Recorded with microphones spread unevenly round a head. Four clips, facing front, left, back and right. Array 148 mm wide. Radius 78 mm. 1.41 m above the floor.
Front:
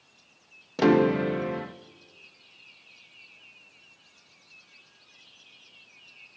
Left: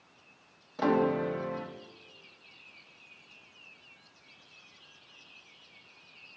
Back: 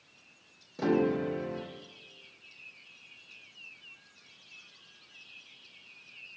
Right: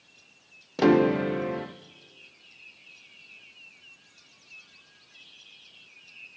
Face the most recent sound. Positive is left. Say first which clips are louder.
# right 6 dB, front 7 dB
turn(degrees=-55)